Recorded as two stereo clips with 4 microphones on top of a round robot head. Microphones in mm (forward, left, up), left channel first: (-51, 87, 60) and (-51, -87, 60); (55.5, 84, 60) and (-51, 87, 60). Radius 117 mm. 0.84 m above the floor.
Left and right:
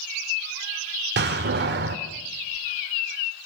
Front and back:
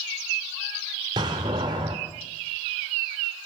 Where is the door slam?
115° right, 1.6 m.